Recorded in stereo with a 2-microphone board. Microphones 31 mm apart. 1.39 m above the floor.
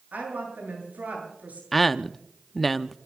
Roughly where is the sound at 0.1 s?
Right.